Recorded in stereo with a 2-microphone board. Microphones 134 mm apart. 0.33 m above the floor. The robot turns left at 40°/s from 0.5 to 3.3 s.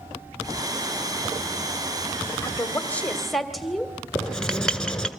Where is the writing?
5° left (ahead or behind), 2.0 m.